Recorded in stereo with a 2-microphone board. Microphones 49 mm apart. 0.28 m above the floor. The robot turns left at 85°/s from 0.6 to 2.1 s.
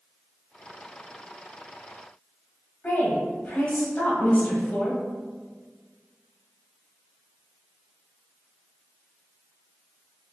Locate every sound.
2.8 s a woman speaking: 30° left (ahead or behind), 1.3 m